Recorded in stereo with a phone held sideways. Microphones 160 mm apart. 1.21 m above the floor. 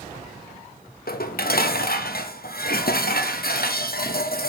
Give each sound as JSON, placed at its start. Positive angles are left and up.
{"t": 1.1, "sound": "dishes clattering", "side_deg": 70, "distance_m": 0.8}